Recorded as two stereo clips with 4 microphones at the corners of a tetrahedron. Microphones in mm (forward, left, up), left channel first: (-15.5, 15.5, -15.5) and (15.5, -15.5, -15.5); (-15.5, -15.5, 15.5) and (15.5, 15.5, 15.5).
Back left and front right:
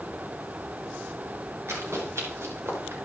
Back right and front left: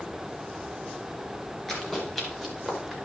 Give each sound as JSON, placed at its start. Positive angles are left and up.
{"t": 1.7, "sound": "running footsteps", "azimuth_deg": -50, "distance_m": 9.5}